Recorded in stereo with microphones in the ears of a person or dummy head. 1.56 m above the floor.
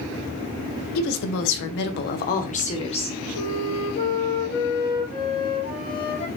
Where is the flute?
50° left (ahead or behind), 2.5 m.